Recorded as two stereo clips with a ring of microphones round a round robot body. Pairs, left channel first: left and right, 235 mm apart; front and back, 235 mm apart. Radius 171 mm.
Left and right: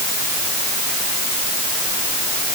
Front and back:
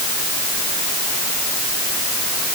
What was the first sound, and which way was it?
Only background noise.